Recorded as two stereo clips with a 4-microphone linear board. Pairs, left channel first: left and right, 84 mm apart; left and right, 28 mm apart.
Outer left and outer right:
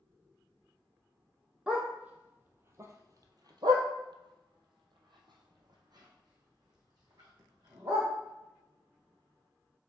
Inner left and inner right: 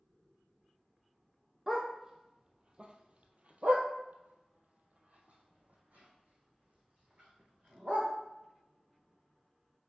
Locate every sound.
1.7 s a dog barking: 10° right (ahead or behind), 1.3 m; by 8.1 s 50° right (ahead or behind), 2.5 m